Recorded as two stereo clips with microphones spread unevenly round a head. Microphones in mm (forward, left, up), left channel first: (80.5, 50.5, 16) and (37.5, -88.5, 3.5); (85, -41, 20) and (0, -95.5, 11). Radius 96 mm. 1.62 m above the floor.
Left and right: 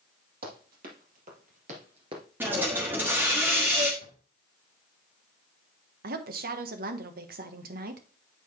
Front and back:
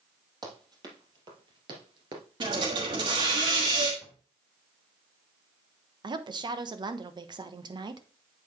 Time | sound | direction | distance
0.4 | running footsteps | 100° right | 3.5 m
2.4 | a hiss | 175° left | 1.2 m
4.0 | a drawer | 100° right | 3 m
6.0 | a woman speaking | 105° right | 1.0 m